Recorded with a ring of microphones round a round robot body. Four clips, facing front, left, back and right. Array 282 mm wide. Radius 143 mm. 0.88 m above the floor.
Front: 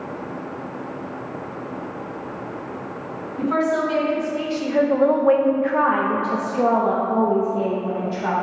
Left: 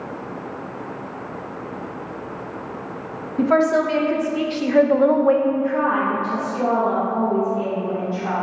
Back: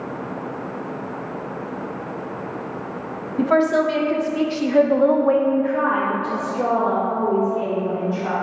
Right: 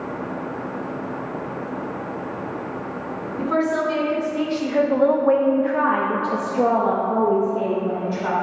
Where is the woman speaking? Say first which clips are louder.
Left 5 dB, back 3 dB; 130° left, 1.2 m; by 8.3 s 35° right, 2.0 m.